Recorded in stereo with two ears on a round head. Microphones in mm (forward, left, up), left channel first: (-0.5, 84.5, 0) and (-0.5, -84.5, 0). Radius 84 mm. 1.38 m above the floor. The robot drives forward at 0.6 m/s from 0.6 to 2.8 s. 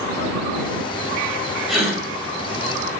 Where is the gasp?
Centre (ahead or behind), 3.5 m.